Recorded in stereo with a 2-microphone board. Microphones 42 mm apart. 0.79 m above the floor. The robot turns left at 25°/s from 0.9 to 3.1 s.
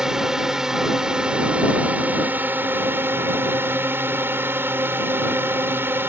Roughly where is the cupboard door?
No cupboard door in this recording.